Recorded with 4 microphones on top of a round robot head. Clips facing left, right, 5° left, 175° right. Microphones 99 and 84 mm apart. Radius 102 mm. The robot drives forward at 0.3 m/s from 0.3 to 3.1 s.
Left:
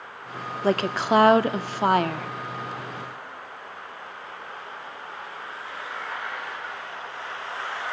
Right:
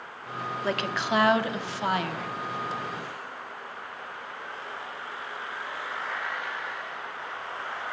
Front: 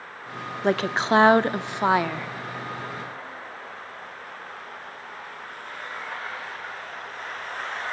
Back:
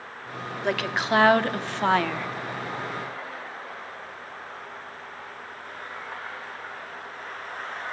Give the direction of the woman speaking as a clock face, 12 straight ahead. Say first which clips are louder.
Left 7 dB, front 4 dB; 10 o'clock.